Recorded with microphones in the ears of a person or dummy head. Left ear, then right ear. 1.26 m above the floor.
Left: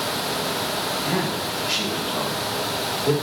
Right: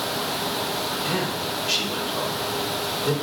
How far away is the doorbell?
No doorbell in this recording.